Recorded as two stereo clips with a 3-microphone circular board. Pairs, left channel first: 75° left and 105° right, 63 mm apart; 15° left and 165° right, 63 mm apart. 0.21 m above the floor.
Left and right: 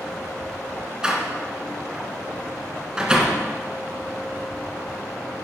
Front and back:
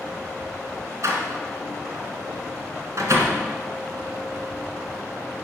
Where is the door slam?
175° right, 1.7 m.